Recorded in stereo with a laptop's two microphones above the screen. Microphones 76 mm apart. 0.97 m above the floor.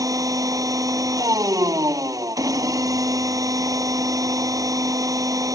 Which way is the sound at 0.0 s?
50° right (ahead or behind).